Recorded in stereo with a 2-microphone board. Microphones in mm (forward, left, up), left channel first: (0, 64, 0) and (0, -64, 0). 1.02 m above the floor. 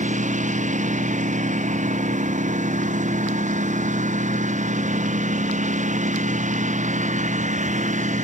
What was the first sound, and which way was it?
A lawn mower, 75° right (ahead or behind).